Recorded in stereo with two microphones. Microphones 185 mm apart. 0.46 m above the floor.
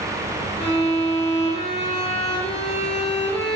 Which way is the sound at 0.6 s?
35° left (ahead or behind).